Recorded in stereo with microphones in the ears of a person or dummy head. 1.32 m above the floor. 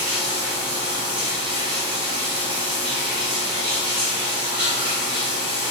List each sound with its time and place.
0.0 s running water: 30° right (ahead or behind), 1.4 m